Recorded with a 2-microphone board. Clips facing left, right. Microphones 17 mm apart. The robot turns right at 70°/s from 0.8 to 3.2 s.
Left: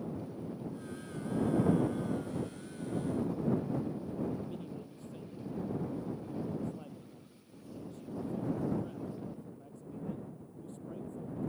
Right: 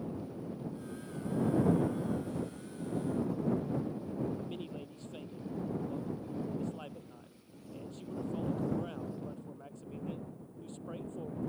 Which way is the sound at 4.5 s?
50° right (ahead or behind).